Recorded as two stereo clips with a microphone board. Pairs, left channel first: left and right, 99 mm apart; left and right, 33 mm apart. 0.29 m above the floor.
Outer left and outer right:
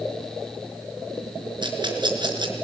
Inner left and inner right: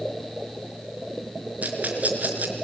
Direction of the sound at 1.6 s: 50° right (ahead or behind).